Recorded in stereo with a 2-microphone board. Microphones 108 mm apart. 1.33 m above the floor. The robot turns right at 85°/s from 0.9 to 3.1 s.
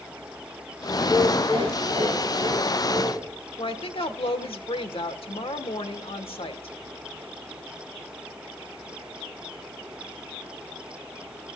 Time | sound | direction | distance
1.0 | laughter | 175° right | 2.5 m
3.6 | a woman speaking | 55° left (ahead or behind) | 1.1 m